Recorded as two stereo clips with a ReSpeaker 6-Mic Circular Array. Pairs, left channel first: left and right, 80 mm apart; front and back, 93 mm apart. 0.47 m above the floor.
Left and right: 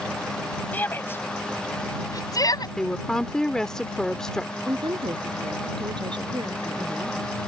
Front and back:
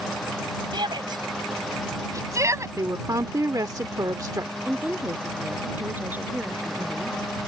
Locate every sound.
0.7 s a shout: 155° left; by 2.7 s 125° left
2.8 s a woman speaking: 165° left
4.7 s a woman speaking: 110° right